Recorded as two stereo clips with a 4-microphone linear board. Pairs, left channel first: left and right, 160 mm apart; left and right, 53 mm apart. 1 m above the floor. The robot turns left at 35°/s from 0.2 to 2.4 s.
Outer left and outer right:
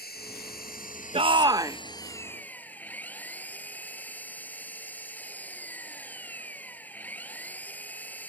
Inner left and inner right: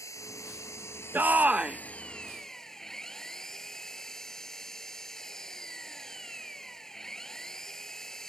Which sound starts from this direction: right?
A shout, at 1.1 s.